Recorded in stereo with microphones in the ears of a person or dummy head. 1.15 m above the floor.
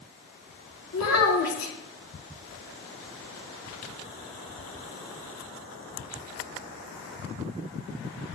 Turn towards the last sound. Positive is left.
turn(degrees=80)